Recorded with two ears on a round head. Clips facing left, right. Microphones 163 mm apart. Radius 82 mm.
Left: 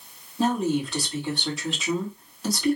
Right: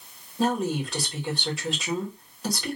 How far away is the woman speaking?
About 2 m.